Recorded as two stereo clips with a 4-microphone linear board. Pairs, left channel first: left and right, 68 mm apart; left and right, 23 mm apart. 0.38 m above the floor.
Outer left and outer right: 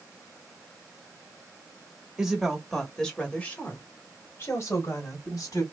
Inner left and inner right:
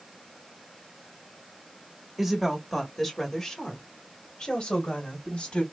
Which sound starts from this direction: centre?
A woman speaking, at 2.2 s.